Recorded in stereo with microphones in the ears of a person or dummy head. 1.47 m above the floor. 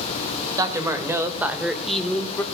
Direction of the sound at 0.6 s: 20° right (ahead or behind).